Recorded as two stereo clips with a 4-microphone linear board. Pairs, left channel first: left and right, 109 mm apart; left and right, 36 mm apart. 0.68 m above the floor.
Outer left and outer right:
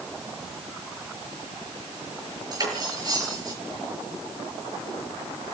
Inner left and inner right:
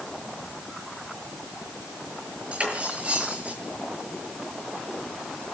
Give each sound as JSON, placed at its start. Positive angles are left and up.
{"t": 2.5, "sound": "cutlery clinking", "side_deg": -35, "distance_m": 7.5}